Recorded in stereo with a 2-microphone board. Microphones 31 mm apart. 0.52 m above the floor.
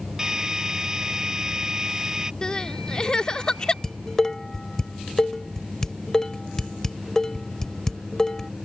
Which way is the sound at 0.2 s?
20° right (ahead or behind).